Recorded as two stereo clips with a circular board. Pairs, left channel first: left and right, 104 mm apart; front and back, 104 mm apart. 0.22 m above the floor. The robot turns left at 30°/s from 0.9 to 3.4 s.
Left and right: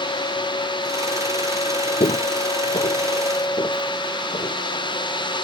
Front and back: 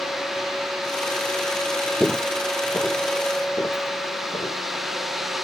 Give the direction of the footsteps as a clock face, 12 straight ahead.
9 o'clock.